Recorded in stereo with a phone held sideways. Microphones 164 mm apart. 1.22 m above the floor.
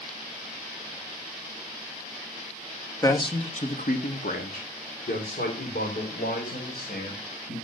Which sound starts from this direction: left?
A man speaking, at 3.0 s.